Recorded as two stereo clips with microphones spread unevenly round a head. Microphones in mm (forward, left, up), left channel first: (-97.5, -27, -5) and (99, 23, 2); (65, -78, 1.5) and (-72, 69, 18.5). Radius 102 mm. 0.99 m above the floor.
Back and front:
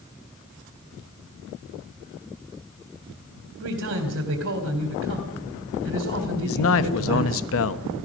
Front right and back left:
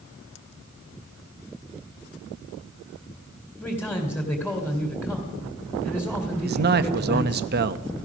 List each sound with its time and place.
3.6 s a man speaking: 35° left, 3 m
6.4 s a man speaking: 175° left, 1.1 m